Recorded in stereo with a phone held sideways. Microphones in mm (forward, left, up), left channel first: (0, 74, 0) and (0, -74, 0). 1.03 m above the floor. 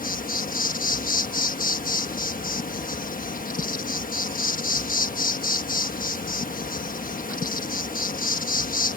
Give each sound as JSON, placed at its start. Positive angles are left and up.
{"t": 0.0, "sound": "an insect", "side_deg": 70}